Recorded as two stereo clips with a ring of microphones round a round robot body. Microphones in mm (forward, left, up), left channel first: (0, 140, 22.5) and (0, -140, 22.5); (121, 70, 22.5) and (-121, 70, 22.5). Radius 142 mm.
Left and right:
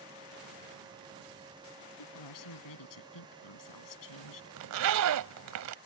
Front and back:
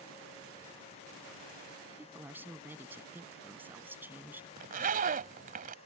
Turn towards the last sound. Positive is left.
turn(degrees=-120)